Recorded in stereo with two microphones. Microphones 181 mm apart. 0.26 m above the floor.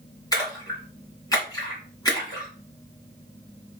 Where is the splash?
20° left (ahead or behind), 2 m.